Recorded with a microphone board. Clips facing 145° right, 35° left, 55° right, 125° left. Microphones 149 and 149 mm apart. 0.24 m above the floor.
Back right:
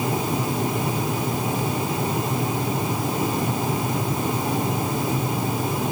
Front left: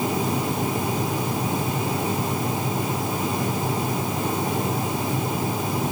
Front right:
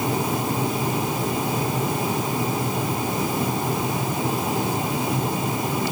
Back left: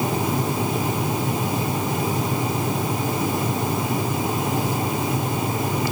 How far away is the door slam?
No door slam in this recording.